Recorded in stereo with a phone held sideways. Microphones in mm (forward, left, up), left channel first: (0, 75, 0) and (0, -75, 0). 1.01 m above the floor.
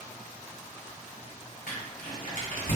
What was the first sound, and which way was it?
Crumpling, 75° left (ahead or behind).